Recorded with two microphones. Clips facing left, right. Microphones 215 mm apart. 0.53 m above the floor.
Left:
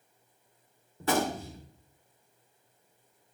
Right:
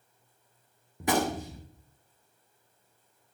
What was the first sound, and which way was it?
A gunshot, 15° right (ahead or behind).